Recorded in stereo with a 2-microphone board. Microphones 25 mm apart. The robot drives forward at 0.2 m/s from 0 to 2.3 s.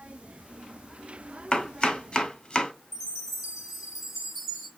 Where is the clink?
No clink in this recording.